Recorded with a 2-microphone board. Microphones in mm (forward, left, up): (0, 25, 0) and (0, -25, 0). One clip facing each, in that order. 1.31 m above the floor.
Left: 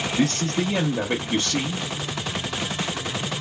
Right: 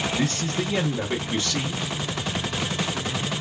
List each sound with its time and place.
0.2 s a man speaking: 70° left (ahead or behind), 0.8 m